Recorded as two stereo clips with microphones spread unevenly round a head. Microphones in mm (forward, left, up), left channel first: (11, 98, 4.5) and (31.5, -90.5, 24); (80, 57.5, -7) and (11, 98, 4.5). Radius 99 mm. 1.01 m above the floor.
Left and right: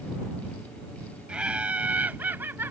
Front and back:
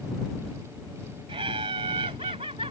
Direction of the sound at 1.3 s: 170° right.